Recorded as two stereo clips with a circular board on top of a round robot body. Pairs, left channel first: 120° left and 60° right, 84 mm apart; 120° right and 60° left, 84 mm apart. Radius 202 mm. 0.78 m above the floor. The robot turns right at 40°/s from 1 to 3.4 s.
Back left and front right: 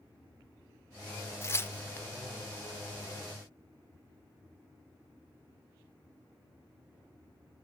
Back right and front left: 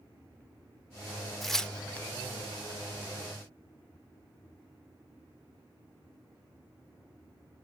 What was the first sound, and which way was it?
Tearing paper, 150° left.